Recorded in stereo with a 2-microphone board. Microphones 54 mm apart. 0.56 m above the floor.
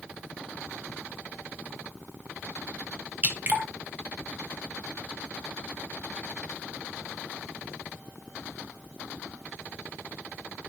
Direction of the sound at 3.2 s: 30° right (ahead or behind).